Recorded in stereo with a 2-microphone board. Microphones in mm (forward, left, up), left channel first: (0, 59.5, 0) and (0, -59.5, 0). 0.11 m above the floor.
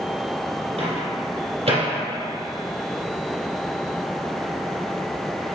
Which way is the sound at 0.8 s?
55° right (ahead or behind).